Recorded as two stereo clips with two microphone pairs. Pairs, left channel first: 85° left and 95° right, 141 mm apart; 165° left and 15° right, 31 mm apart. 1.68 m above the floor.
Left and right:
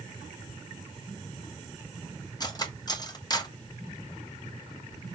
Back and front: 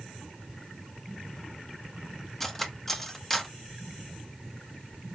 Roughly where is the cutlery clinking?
Left.